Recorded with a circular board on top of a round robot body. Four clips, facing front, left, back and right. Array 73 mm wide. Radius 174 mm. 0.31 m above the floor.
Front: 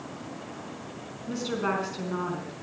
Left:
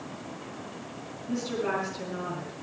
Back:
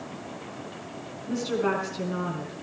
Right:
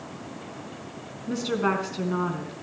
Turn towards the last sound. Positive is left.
turn(degrees=-85)